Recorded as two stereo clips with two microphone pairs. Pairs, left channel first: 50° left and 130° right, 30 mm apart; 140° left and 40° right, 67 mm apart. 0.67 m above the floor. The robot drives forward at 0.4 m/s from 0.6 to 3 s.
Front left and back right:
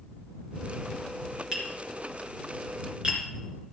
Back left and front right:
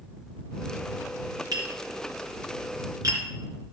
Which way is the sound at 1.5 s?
60° right.